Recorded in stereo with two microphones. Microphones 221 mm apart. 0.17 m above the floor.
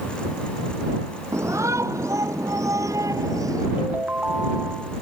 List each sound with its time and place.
1.3 s a shout: 15° right (ahead or behind)
3.8 s a ringtone: 10° right (ahead or behind)